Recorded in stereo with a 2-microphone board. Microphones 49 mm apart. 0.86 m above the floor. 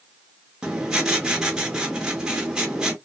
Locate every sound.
0.6 s writing: 15° right (ahead or behind), 0.9 m